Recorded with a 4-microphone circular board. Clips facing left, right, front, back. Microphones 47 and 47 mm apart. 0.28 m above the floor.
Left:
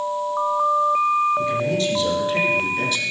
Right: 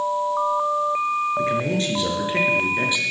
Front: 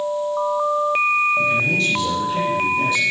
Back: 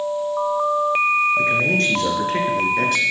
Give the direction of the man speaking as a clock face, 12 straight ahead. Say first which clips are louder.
Left 1 dB, even; 5 o'clock.